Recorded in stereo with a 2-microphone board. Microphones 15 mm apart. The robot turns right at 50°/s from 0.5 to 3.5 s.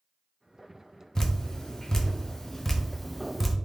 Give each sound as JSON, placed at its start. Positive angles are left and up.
{"t": 1.1, "sound": "dripping", "side_deg": 35, "distance_m": 0.5}